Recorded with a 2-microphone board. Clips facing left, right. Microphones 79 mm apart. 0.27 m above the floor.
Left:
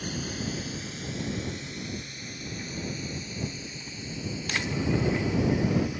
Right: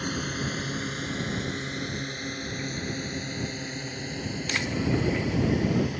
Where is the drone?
50° right (ahead or behind); by 6.0 s 55° right (ahead or behind).